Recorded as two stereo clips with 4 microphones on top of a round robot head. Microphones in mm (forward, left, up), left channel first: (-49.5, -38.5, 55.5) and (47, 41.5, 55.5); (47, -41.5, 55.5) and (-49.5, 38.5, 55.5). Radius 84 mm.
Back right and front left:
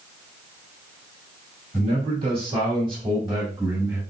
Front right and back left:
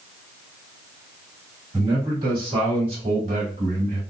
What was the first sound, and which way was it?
A man speaking, 80° left.